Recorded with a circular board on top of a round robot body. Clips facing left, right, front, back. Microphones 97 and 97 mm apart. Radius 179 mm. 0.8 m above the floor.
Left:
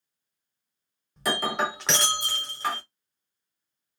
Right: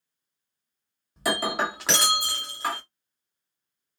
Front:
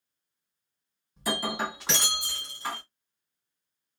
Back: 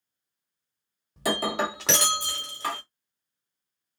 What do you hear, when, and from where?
1.2 s breaking glass: 175° right, 1.4 m